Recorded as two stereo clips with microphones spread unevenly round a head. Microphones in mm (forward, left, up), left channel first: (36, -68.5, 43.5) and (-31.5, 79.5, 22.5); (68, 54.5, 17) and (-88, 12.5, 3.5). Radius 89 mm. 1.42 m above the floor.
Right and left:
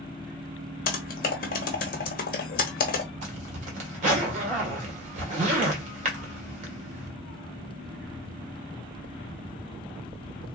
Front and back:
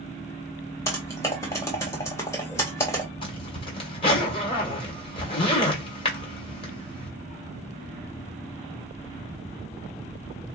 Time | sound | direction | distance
0.9 | typing on a keyboard | 55° right | 1.2 m
3.2 | a zipper | 65° left | 2.0 m